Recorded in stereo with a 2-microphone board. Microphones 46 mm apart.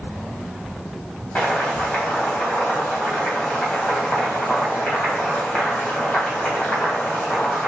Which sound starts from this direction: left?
Boiling, at 1.4 s.